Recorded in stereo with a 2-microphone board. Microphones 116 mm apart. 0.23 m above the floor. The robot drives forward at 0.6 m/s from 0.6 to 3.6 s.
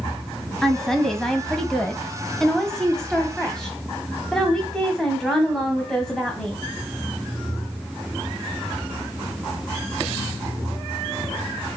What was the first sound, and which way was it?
A woman speaking, 5° left (ahead or behind).